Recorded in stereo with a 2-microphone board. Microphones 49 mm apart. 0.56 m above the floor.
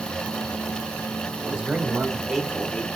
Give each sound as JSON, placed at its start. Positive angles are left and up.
{"t": 1.4, "sound": "a man speaking", "side_deg": -20, "distance_m": 2.0}